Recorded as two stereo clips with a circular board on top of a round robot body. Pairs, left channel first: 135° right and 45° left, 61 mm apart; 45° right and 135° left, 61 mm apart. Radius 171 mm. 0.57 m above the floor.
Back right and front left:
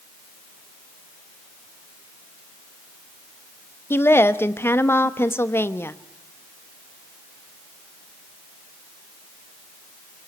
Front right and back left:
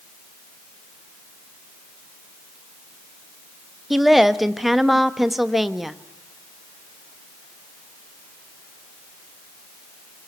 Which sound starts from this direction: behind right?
A woman speaking, at 3.9 s.